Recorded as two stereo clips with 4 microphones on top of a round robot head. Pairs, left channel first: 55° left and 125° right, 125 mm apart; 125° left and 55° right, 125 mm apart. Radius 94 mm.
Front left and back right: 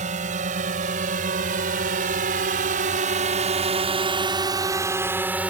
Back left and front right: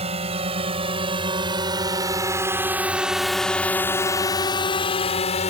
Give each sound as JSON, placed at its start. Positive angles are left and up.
{"t": 0.0, "sound": "a drone", "azimuth_deg": -95}